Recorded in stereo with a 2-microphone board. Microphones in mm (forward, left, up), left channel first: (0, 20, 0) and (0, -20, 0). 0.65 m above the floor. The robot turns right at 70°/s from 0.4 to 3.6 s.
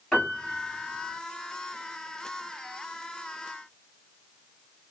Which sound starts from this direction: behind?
A piano, at 0.1 s.